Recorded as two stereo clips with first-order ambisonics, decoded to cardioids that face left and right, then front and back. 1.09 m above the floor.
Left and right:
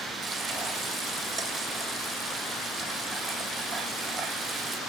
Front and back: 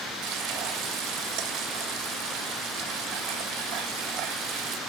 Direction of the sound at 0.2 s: 150° right.